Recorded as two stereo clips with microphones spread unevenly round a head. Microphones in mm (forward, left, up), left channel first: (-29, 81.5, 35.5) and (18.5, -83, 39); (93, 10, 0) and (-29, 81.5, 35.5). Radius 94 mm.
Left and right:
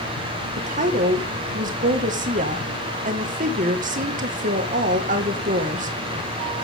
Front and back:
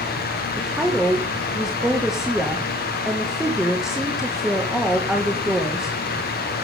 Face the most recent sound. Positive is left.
turn(degrees=-120)